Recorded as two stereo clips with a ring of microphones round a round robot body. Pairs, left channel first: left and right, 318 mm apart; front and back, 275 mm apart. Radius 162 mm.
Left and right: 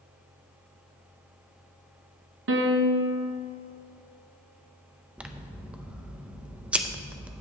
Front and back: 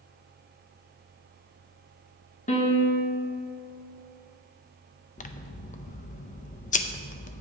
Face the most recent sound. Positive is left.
turn(degrees=-10)